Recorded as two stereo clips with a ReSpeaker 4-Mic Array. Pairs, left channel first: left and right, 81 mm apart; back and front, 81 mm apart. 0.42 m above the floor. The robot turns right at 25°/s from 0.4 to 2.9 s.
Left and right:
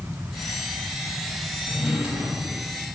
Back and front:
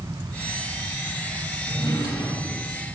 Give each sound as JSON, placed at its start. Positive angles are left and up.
{"t": 1.7, "sound": "a drawer", "azimuth_deg": -175, "distance_m": 4.5}